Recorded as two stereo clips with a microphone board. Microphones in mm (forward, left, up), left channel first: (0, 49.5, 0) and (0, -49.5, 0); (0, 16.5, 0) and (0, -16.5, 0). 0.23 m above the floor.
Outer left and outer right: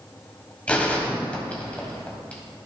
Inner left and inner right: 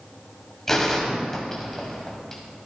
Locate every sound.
0.7 s a gunshot: 15° left (ahead or behind), 1.6 m